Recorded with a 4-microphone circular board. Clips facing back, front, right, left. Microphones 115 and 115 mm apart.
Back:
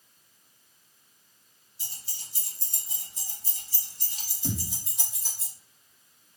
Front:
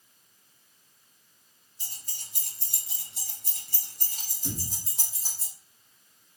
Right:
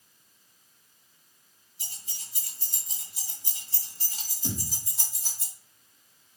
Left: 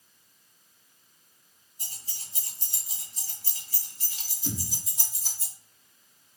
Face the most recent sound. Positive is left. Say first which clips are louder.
# back 3 dB, even
turn(degrees=-130)